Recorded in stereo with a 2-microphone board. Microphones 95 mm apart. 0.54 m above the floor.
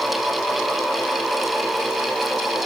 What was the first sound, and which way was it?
Only background noise.